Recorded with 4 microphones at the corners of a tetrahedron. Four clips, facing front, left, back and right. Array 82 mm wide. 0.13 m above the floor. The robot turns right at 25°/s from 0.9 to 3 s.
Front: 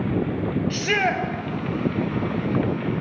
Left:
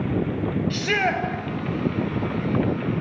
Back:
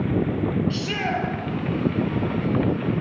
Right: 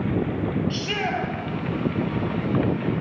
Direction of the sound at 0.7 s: 35° left.